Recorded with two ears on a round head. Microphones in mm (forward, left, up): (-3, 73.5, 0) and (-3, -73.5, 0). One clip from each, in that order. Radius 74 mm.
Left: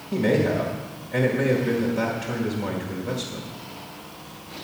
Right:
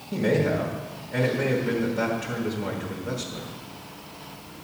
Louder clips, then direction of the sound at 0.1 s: Left 2 dB; 15° left (ahead or behind).